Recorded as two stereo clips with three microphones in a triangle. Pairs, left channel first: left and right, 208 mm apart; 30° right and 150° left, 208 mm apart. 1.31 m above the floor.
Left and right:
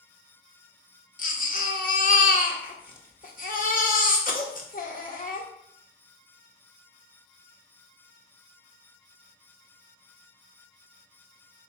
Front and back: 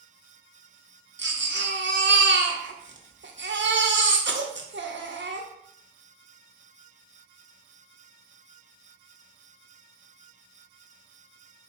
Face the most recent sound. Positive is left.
turn(degrees=130)